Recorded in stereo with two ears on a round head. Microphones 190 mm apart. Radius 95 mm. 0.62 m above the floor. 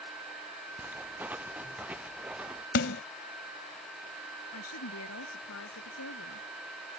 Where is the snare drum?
55° left (ahead or behind).